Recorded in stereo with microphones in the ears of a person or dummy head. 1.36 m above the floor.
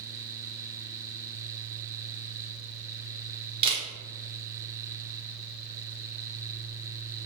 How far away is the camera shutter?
About 0.7 m.